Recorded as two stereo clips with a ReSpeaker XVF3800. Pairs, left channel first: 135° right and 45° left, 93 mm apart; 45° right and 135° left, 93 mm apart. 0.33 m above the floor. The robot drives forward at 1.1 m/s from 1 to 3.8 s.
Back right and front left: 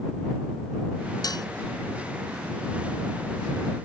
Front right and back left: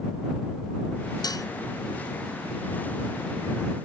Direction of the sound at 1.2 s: 90° right.